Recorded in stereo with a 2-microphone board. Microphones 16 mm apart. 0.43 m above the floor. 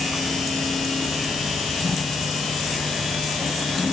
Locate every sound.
Only background noise.